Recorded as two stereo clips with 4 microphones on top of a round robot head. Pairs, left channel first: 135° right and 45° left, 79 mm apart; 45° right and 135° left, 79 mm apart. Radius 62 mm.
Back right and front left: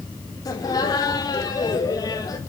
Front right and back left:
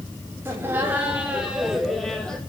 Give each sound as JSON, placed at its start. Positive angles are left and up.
{"t": 0.5, "sound": "laughter", "azimuth_deg": -165, "distance_m": 1.8}